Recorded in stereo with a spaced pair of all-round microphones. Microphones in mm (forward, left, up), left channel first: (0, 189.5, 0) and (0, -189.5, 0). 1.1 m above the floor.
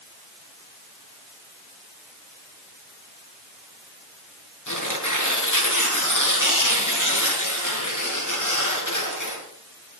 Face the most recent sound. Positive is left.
turn(degrees=50)  # may be behind; listen again after turning